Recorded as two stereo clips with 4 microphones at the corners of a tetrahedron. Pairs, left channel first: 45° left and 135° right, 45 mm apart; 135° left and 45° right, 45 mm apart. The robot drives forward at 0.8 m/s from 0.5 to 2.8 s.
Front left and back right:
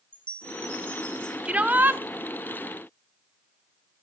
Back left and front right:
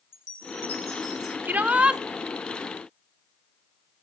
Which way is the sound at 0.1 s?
105° left.